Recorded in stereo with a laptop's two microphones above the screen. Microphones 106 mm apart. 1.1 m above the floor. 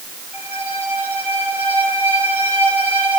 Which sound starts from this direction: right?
A violin, at 0.3 s.